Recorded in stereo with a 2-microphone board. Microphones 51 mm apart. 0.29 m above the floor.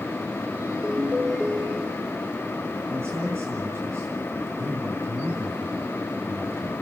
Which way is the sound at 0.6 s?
20° right (ahead or behind).